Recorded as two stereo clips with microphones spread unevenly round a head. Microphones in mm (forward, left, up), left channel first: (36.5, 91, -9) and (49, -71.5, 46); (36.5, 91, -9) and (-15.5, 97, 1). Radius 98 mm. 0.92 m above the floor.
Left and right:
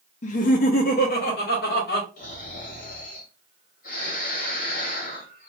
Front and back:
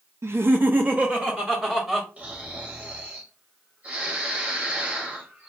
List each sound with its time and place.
0.2 s laughter: 125° left, 0.5 m; by 2.1 s 100° left, 1.4 m
2.2 s snoring: 110° left, 1.7 m